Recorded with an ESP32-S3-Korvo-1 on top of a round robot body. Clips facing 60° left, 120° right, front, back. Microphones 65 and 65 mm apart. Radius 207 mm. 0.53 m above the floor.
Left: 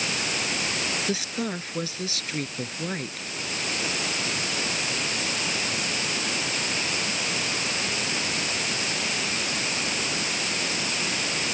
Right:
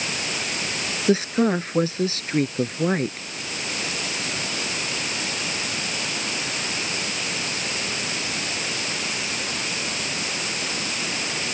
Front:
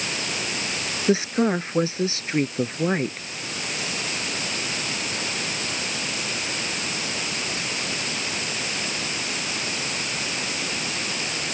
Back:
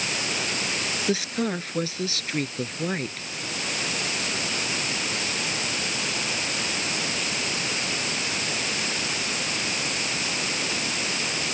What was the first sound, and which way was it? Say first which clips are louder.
A woman speaking: right 9 dB, front 7 dB; 65° right.